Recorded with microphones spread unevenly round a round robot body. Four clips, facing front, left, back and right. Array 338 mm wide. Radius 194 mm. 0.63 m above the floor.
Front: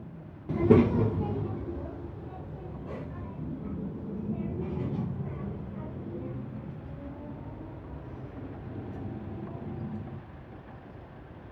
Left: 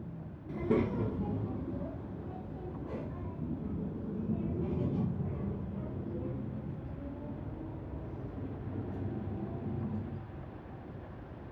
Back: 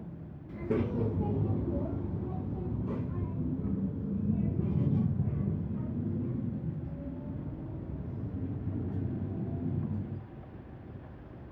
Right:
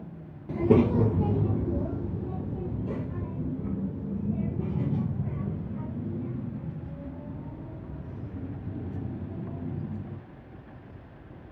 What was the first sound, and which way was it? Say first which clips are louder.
A child speaking: right 9 dB, front 10 dB; 25° right.